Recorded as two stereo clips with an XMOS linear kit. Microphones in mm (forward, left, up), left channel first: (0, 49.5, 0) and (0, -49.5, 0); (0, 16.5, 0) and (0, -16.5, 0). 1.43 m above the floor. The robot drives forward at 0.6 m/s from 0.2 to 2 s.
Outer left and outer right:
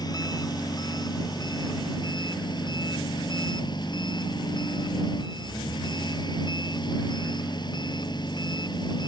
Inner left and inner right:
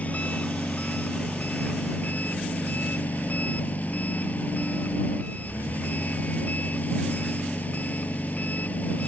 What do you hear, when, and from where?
0.0 s an engine running: 40° left (ahead or behind); by 9.1 s 45° left (ahead or behind)